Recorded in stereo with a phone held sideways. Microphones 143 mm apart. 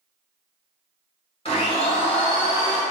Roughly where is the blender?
Left.